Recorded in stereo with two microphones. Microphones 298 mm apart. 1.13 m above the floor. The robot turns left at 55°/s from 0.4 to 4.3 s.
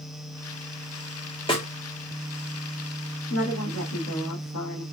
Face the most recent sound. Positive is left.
turn(degrees=80)